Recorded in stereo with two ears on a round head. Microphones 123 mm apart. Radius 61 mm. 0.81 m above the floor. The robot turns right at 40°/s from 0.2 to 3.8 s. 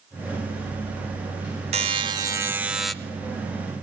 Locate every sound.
1.7 s a buzzer: 45° right, 1.0 m; by 2.9 s 5° left, 1.0 m